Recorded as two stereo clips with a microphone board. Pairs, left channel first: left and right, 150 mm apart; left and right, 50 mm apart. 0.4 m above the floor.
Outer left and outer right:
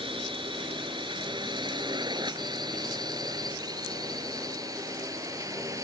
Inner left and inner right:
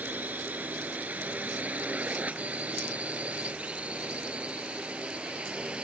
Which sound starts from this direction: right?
A drone, at 0.0 s.